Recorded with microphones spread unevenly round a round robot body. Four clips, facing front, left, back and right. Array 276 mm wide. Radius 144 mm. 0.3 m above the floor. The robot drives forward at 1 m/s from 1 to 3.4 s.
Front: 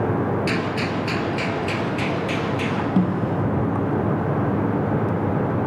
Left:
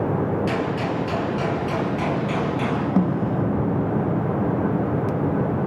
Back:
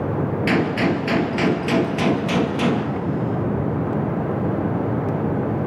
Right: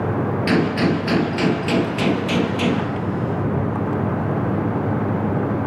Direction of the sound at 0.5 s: 120° right.